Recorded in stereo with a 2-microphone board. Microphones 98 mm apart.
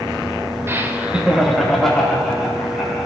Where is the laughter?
25° right (ahead or behind), 1.0 m; by 3.1 s 10° left (ahead or behind), 3.5 m.